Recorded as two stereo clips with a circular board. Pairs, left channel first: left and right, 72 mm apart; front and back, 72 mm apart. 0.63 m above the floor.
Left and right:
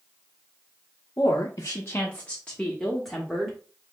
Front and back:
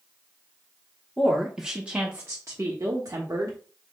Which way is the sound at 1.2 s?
80° left.